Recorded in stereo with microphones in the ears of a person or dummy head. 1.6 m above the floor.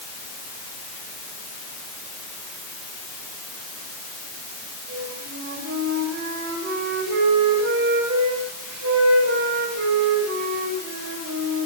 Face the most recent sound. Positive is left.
turn(degrees=-70)  # may be behind; listen again after turning